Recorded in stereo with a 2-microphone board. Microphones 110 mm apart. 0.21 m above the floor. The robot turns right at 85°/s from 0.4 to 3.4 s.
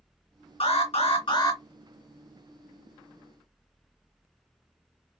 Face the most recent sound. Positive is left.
turn(degrees=-55)